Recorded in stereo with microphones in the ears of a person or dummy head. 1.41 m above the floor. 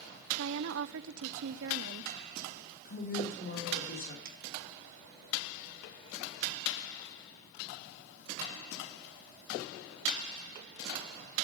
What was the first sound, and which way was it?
A woman speaking, 75° right (ahead or behind).